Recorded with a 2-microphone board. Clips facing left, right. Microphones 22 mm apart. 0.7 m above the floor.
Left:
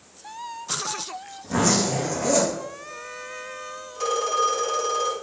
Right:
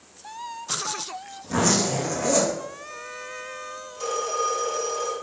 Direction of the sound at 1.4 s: 10° right (ahead or behind).